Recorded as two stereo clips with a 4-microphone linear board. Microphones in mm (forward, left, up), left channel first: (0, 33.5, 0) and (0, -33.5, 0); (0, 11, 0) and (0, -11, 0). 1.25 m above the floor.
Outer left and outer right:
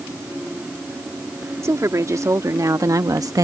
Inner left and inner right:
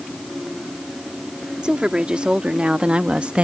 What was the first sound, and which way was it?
A woman speaking, 55° right (ahead or behind).